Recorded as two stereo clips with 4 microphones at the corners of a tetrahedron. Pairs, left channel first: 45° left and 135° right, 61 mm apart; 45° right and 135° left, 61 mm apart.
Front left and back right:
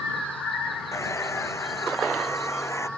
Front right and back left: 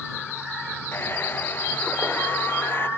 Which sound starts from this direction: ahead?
A hair dryer, at 0.9 s.